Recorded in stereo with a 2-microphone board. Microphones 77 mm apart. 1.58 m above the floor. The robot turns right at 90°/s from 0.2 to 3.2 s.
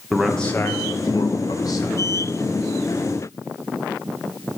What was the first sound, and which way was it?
A man speaking, 5° right.